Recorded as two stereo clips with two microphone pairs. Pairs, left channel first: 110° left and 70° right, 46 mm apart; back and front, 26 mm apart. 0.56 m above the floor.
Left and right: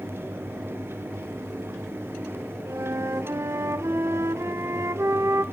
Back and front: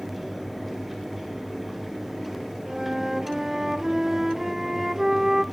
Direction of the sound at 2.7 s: 75° right.